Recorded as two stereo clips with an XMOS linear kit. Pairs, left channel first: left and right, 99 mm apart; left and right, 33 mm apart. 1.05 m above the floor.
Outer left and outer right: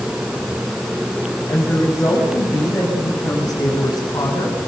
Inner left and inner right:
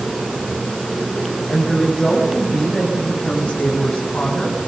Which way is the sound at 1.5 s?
25° left (ahead or behind).